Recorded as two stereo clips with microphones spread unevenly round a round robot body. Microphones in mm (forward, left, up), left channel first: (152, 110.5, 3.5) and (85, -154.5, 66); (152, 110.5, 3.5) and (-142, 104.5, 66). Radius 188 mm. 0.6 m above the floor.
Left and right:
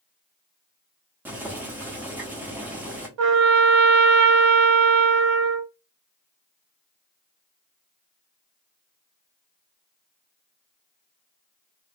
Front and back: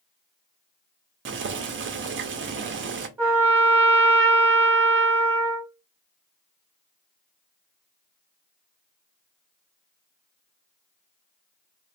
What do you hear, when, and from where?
1.2 s boiling: 155° left, 0.5 m
3.2 s a trumpet: 100° right, 0.6 m